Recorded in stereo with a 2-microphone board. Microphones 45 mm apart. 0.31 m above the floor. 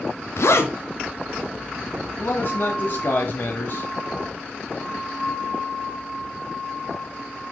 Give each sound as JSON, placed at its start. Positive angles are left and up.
{"t": 0.4, "sound": "a zipper", "side_deg": 70, "distance_m": 1.3}
{"t": 2.2, "sound": "a man speaking", "side_deg": 55, "distance_m": 1.7}